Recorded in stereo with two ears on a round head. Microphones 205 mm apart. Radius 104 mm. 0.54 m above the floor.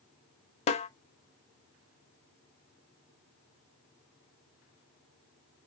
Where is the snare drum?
30° left (ahead or behind), 0.5 m.